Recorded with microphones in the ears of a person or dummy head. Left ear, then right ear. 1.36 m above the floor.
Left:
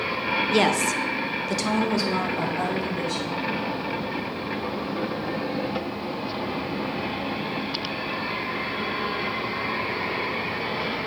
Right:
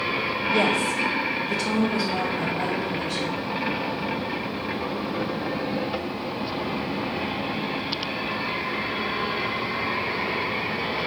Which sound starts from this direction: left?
A woman speaking, at 0.5 s.